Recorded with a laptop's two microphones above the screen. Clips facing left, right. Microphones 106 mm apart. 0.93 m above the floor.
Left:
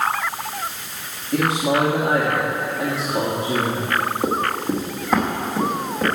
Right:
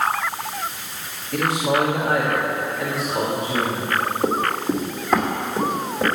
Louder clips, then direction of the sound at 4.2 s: Right 1 dB; 10° left (ahead or behind).